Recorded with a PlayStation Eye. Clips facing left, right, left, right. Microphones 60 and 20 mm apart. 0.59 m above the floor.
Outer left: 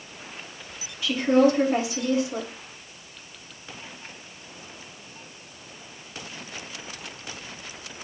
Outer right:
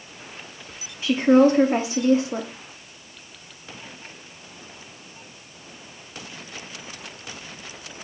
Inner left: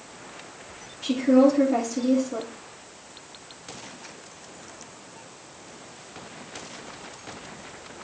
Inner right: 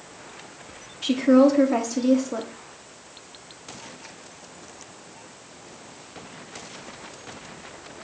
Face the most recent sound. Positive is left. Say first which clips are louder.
# outer right 4 dB, inner right 2 dB
turn(degrees=-30)  # may be behind; listen again after turning